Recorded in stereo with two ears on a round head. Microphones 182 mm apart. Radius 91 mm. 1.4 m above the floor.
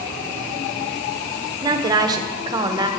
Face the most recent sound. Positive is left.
turn(degrees=-20)  # may be behind; listen again after turning